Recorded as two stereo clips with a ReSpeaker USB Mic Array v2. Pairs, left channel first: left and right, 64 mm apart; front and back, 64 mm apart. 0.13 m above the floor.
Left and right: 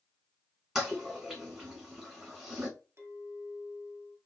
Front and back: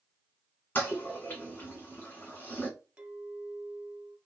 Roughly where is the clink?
Behind right.